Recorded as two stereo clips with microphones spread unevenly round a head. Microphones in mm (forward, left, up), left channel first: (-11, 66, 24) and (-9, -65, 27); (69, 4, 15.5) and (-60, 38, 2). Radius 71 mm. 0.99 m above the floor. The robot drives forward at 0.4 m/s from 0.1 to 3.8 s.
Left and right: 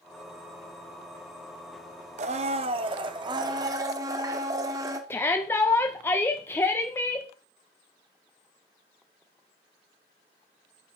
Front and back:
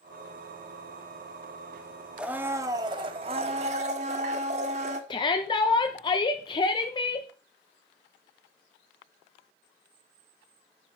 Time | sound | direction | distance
2.2 | a blender | 110° right | 0.6 m
5.1 | a shout | 30° left | 0.8 m